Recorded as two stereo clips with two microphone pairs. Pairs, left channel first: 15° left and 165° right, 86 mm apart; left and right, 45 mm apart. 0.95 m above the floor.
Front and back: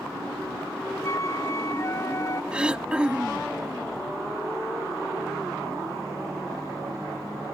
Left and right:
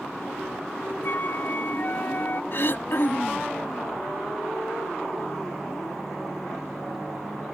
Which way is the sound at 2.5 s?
115° left.